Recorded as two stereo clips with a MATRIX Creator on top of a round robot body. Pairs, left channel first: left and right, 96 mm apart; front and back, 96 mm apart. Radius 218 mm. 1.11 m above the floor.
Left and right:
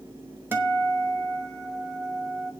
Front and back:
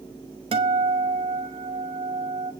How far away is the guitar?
About 1.2 m.